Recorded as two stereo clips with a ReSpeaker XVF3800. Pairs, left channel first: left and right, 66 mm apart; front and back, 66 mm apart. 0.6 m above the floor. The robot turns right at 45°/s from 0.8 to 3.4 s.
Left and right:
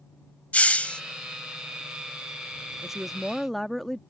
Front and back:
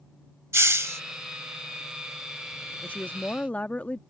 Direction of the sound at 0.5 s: 150° left.